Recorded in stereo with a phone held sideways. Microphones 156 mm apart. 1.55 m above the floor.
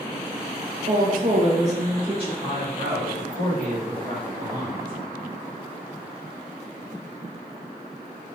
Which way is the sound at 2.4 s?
65° right (ahead or behind).